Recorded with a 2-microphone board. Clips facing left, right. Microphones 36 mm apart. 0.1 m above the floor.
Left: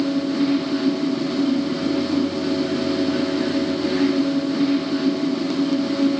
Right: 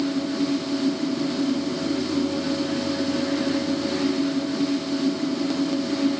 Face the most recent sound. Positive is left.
No sound to turn to.